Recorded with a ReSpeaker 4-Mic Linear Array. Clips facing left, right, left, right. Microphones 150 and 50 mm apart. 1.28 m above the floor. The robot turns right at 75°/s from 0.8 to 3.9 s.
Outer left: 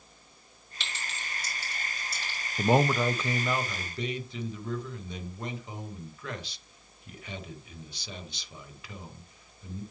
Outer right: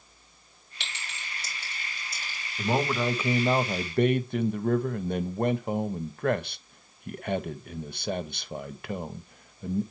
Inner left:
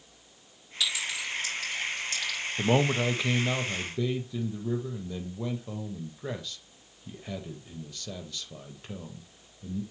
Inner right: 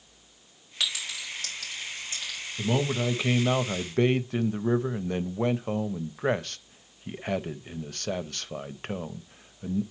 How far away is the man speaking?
About 0.6 m.